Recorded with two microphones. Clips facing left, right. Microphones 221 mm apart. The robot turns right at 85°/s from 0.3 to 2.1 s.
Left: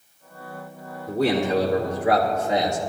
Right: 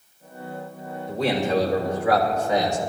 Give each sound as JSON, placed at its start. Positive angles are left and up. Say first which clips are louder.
{"t": 1.1, "sound": "a man speaking", "louder": "left 2 dB", "azimuth_deg": 65, "distance_m": 5.0}